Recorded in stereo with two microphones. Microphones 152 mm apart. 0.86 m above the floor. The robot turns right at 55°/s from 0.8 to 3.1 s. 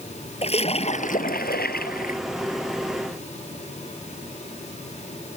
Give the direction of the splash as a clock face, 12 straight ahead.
11 o'clock.